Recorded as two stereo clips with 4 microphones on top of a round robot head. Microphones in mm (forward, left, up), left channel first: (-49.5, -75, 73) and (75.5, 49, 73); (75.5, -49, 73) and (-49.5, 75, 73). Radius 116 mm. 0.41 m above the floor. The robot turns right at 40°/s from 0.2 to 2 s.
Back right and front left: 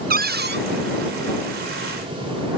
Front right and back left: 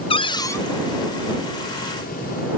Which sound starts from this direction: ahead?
A cupboard door, at 0.1 s.